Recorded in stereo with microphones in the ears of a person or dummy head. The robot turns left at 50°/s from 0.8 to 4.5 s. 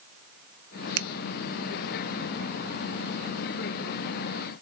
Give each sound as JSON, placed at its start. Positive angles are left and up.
{"t": 1.0, "sound": "a finger snap", "side_deg": -65, "distance_m": 0.6}